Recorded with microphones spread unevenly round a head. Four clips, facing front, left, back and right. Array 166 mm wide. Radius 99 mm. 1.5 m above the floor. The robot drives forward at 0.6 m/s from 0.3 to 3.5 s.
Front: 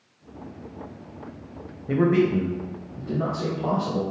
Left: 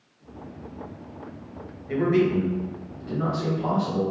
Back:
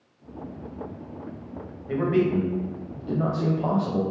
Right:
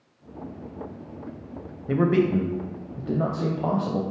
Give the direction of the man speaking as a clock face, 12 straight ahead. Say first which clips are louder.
Even, front 2 dB; 1 o'clock.